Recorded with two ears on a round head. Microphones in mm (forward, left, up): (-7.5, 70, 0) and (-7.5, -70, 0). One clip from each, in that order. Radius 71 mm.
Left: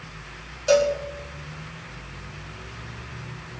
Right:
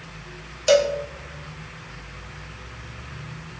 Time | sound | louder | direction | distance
0.7 | a cowbell | right 1 dB | 55° right (ahead or behind) | 2.5 m